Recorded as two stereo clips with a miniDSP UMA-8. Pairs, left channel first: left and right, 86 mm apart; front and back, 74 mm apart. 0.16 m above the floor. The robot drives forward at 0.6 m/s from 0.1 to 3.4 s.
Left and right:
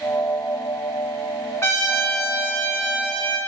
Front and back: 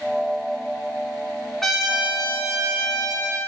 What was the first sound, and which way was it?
A trumpet, 85° left.